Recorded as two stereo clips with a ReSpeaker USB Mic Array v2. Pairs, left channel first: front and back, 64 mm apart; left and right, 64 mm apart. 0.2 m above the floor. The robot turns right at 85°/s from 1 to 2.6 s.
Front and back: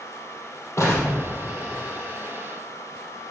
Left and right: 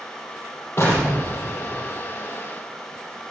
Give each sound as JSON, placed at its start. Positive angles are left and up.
{"t": 0.8, "sound": "an explosion", "azimuth_deg": 40, "distance_m": 4.5}